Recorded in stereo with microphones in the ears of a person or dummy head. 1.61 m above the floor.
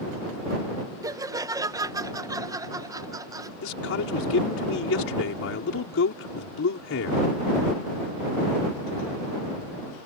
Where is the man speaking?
85° left.